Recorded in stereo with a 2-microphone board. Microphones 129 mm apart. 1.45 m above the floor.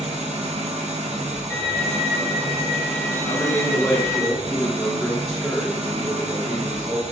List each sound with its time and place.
0.0 s an engine running: 55° right (ahead or behind), 1.2 m
1.5 s a violin: 20° left (ahead or behind), 3 m
3.3 s a man speaking: 10° left (ahead or behind), 2.5 m